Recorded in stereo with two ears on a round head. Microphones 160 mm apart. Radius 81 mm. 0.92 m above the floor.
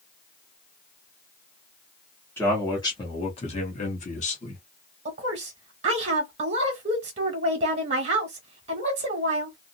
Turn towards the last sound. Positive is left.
turn(degrees=-35)  # may be behind; listen again after turning